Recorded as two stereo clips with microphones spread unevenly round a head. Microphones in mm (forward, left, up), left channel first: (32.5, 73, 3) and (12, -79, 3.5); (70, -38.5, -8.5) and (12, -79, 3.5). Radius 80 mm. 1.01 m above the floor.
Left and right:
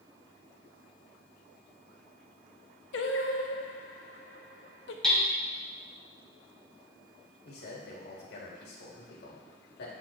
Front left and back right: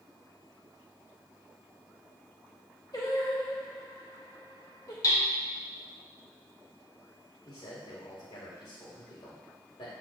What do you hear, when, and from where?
2.9 s singing: 105° left, 0.7 m
5.0 s hammering: 5° right, 2.5 m
7.5 s a man speaking: 65° left, 2 m